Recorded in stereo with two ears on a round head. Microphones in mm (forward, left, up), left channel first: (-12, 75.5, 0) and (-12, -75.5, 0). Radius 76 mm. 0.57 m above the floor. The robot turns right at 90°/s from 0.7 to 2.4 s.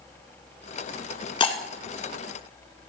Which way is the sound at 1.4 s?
30° left (ahead or behind).